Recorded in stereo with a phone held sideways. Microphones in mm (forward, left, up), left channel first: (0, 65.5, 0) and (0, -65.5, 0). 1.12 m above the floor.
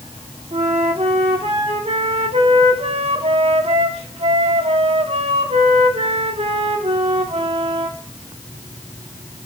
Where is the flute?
50° right (ahead or behind), 1.5 m.